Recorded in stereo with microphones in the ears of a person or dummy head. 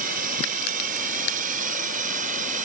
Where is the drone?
50° right (ahead or behind).